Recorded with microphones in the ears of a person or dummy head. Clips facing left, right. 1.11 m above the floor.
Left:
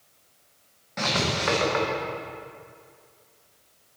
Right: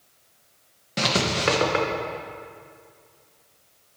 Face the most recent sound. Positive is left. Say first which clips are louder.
# right 3 dB
turn(degrees=-40)  # may be behind; listen again after turning